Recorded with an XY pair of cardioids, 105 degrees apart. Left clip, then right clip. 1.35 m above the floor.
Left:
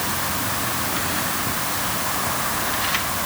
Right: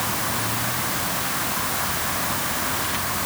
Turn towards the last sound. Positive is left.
No sound to turn to.